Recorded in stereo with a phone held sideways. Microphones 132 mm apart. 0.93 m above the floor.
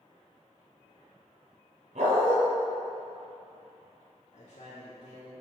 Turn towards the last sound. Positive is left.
turn(degrees=60)  # may be behind; listen again after turning